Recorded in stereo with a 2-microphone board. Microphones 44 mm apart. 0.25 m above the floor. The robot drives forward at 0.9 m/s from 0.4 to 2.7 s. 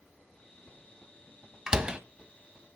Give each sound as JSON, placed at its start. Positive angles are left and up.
{"t": 1.7, "sound": "a door slam", "side_deg": -20, "distance_m": 1.0}